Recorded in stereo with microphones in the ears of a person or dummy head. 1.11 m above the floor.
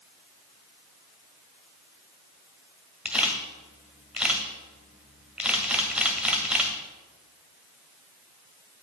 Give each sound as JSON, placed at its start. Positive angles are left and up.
{"t": 3.0, "sound": "a camera shutter", "side_deg": -10, "distance_m": 1.6}